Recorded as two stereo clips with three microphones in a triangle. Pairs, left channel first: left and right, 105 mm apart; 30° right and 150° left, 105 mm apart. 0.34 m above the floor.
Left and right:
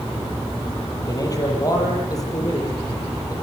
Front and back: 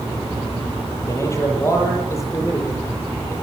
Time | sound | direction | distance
1.1 | a man speaking | 35° left | 8.5 m